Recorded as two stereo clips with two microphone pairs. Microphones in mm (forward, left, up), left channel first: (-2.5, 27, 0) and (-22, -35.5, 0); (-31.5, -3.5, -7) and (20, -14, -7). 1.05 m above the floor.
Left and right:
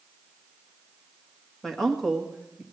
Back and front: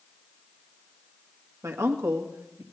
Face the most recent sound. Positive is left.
turn(degrees=-30)